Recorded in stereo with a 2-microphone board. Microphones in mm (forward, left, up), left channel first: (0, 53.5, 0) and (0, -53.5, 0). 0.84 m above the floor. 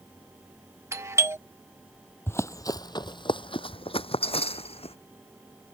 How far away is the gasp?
I don't hear a gasp.